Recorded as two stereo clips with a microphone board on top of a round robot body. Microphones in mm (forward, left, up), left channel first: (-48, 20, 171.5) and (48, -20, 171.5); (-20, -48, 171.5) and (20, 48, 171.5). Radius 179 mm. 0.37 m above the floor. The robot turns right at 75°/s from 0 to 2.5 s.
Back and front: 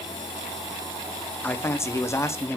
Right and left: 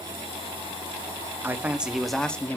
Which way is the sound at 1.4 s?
110° left.